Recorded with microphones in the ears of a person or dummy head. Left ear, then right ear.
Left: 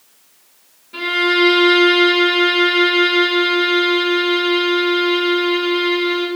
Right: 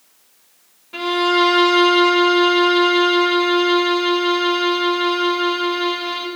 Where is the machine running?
I don't hear a machine running.